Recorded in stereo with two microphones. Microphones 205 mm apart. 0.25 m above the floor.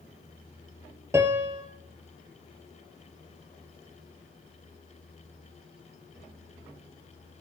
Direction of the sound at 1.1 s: 15° right (ahead or behind).